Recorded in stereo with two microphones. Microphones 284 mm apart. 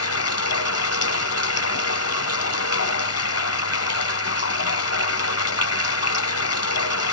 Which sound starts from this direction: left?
Running water, at 0.0 s.